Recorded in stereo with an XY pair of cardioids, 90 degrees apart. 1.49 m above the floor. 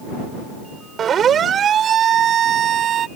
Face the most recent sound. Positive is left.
turn(degrees=-70)